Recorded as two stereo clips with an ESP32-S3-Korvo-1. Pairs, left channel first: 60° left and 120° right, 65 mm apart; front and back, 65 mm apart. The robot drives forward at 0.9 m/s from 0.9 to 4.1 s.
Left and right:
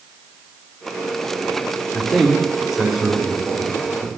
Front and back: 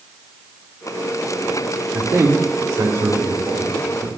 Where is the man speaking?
140° left, 1.3 m; by 4.1 s 165° left, 3 m.